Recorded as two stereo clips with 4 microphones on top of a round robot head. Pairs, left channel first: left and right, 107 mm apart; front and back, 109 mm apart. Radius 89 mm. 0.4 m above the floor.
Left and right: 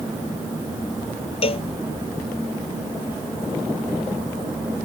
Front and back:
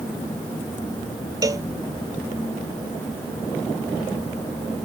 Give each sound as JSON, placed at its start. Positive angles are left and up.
{"t": 1.4, "sound": "a cowbell", "azimuth_deg": 120}